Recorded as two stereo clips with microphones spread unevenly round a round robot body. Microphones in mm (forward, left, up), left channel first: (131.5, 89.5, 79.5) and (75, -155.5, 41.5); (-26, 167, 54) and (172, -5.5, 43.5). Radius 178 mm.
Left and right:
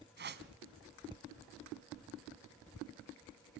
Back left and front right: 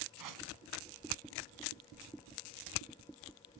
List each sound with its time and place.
0.2 s a whoosh: 50° right, 1.8 m